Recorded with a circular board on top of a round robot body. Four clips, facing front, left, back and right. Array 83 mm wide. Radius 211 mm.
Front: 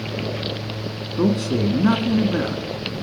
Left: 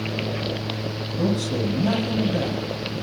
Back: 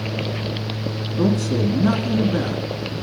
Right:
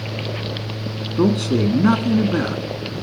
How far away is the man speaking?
About 2 m.